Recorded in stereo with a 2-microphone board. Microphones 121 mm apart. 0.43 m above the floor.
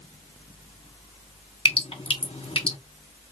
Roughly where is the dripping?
Left.